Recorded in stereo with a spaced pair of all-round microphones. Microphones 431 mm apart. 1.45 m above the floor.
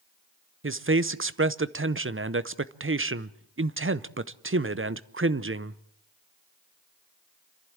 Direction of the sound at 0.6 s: 30° right (ahead or behind).